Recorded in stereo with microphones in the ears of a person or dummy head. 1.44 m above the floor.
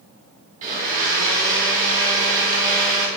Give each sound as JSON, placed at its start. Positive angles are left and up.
{"t": 0.6, "sound": "a blender", "side_deg": -45, "distance_m": 5.0}